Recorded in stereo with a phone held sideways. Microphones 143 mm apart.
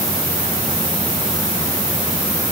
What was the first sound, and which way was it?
Only background noise.